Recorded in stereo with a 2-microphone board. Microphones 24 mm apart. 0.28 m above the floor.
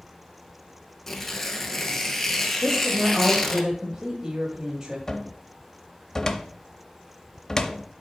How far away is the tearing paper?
About 0.9 m.